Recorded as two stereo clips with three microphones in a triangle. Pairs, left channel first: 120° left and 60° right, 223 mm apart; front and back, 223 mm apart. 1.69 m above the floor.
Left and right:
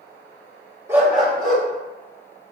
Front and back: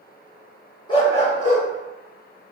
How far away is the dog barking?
About 1.1 m.